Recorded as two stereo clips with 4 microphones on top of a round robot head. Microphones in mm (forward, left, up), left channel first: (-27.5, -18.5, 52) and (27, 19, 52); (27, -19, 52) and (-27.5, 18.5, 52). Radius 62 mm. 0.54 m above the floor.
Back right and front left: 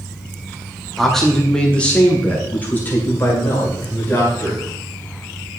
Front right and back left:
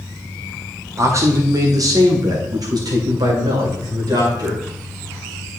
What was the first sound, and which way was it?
A man speaking, 125° left.